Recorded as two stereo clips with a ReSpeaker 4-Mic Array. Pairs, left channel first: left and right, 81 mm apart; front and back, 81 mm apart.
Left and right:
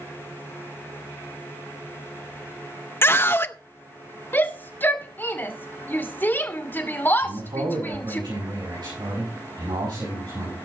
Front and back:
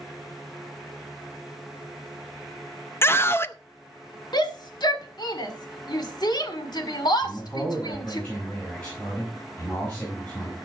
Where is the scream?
45° left, 0.6 m.